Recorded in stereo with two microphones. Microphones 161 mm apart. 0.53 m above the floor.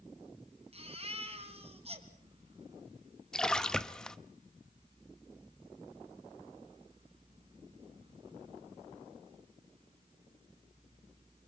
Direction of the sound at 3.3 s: 5° left (ahead or behind).